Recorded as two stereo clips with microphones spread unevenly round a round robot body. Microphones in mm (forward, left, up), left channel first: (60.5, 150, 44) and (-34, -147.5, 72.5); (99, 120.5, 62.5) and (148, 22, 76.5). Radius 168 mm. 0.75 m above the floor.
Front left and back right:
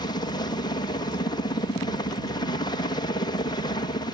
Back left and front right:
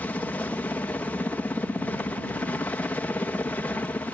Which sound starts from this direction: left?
A helicopter, at 0.0 s.